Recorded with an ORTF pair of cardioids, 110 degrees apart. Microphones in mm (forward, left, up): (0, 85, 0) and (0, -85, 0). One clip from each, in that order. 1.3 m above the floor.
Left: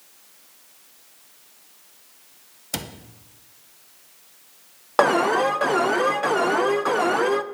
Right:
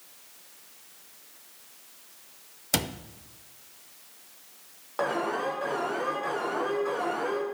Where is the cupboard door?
15° right, 0.7 m.